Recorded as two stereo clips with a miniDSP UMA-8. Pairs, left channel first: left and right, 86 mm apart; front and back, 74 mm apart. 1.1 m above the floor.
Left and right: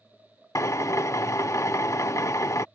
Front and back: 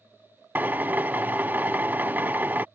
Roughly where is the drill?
Behind left.